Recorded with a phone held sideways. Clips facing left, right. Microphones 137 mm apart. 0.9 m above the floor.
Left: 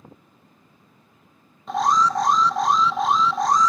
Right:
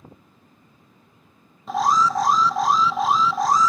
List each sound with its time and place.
1.7 s an alarm: centre (ahead or behind), 0.6 m